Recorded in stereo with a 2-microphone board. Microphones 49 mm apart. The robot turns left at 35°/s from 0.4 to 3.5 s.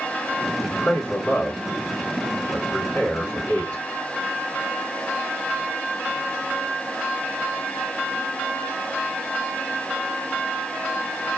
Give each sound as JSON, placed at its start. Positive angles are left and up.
{"t": 0.6, "sound": "a man speaking", "side_deg": 35, "distance_m": 2.0}